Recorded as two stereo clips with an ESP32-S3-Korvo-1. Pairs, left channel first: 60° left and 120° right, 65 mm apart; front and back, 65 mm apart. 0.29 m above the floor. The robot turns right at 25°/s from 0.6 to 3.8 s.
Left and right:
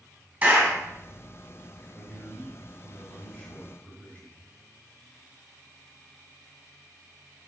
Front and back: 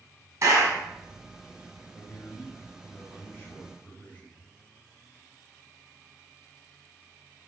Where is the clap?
Straight behind, 2 m; by 0.8 s 175° right, 2 m.